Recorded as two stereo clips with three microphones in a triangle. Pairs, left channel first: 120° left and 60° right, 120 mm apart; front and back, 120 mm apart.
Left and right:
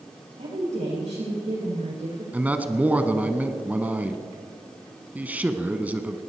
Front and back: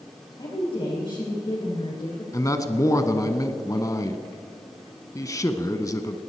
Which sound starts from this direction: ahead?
A man speaking, at 2.3 s.